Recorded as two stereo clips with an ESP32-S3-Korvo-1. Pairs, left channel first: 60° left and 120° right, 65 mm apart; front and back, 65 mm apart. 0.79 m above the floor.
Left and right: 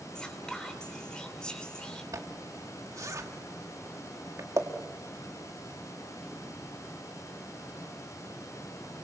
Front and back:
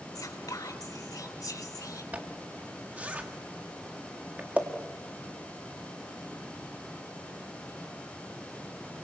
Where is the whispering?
20° right, 3 m.